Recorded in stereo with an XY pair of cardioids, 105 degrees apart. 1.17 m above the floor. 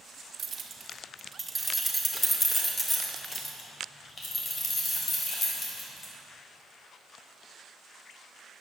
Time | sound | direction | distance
0.4 | keys jangling | 40° right | 2 m